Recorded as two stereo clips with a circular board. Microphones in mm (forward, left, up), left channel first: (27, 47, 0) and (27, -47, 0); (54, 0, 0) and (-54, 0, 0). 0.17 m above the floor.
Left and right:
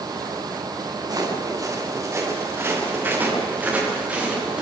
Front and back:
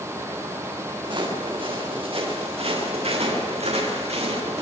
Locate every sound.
1.0 s footsteps: 135° right, 5.5 m; by 4.6 s 170° right, 8 m